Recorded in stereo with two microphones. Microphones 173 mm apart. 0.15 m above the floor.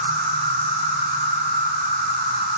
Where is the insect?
80° right, 0.8 m.